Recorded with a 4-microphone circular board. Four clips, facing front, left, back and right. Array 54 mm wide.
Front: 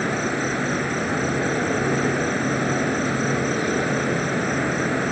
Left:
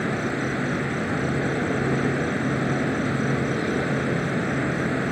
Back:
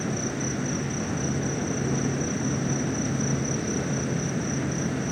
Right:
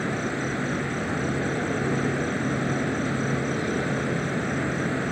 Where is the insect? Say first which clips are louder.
Left 2 dB, front 6 dB; 10° left.